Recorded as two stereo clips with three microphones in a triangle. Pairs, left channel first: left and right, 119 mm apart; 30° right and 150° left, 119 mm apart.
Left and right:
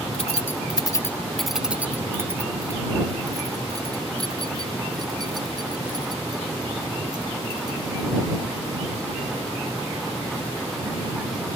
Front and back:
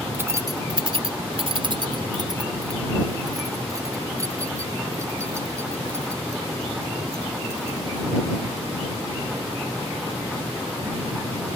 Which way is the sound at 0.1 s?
80° left.